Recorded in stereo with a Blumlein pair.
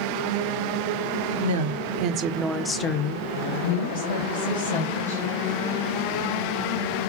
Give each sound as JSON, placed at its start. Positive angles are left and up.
{"t": 1.4, "sound": "a woman speaking", "azimuth_deg": -65, "distance_m": 1.0}